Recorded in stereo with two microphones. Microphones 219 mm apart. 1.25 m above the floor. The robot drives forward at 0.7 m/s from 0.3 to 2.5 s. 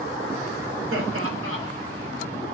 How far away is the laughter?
About 4 m.